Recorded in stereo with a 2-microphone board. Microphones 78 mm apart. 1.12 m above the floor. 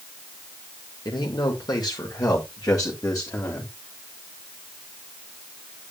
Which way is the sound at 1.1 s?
70° left (ahead or behind).